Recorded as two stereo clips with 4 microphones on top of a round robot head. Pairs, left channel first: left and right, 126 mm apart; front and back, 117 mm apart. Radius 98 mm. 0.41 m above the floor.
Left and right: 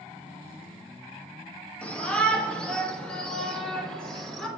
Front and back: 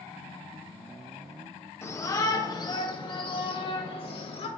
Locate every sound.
1.8 s a shout: 25° left, 1.4 m; by 4.5 s 5° left, 2.5 m